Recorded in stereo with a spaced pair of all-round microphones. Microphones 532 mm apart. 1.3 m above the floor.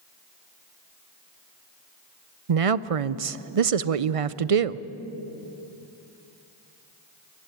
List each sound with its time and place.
2.5 s a woman speaking: 80° right, 0.7 m